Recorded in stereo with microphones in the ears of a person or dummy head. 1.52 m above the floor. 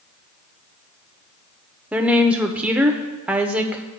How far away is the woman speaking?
About 0.7 m.